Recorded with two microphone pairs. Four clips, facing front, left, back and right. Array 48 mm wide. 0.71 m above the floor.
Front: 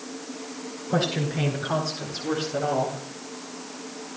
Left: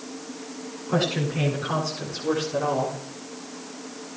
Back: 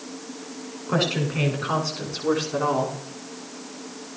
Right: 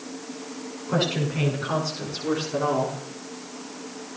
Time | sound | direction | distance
0.9 | a woman speaking | 175° left | 8 m